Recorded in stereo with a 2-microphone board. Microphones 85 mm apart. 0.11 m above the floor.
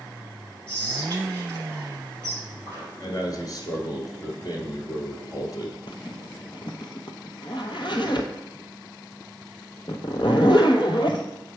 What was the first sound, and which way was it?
Whispering, 35° right (ahead or behind).